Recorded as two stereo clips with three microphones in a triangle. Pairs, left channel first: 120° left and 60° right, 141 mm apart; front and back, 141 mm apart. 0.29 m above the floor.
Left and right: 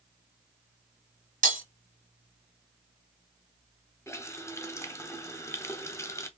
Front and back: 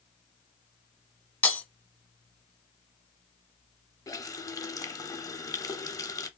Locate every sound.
1.4 s breaking glass: 80° right, 1.0 m
4.1 s a running tap: 60° left, 0.8 m